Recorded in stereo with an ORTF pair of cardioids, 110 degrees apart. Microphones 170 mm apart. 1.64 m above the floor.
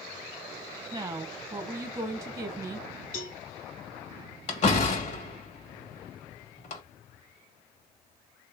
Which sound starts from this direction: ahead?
A woman speaking, at 0.9 s.